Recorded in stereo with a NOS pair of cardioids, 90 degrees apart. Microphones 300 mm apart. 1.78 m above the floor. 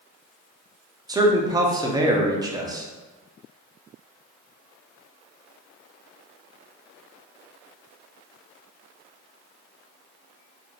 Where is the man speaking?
10° right, 0.6 m.